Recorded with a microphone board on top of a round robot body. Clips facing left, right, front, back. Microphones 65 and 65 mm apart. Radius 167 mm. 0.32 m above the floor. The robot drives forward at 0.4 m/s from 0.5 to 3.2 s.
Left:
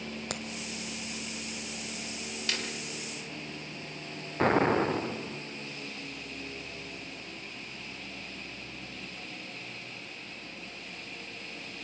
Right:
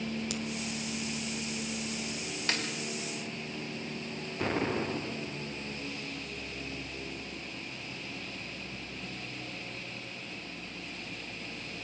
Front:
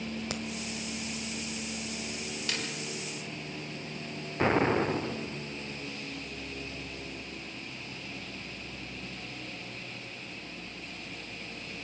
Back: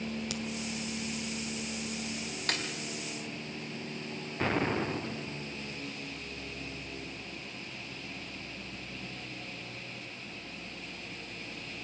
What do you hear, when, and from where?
0.3 s a crack: 55° left, 1.8 m
2.5 s a snare drum: 145° right, 3.5 m
4.4 s an explosion: 65° left, 1.0 m